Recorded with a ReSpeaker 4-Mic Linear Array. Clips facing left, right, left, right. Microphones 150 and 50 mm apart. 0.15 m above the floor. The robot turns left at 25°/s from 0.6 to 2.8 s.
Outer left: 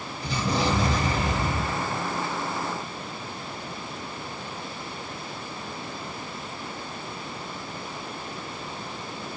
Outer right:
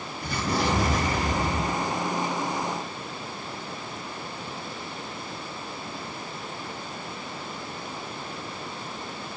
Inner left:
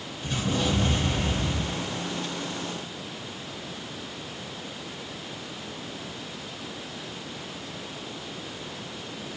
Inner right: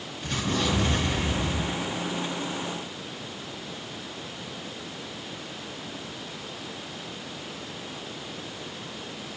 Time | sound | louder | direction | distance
0.2 | an explosion | outer left 1 dB, even | 115° right | 3 m